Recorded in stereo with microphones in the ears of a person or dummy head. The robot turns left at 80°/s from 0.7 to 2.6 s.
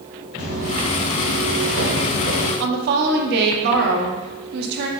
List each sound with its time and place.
0.4 s footsteps: 40° right (ahead or behind), 1.9 m; by 2.5 s 40° left (ahead or behind), 1.9 m
2.6 s a woman speaking: 65° right (ahead or behind), 0.7 m